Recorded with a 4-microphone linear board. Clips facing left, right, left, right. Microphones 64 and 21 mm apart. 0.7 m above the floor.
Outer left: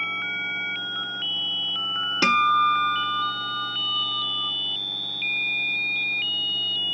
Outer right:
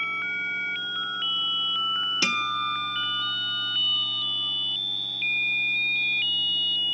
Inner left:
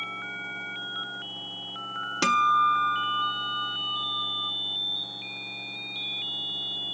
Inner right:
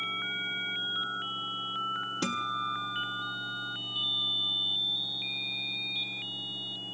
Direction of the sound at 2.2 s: 40° left (ahead or behind).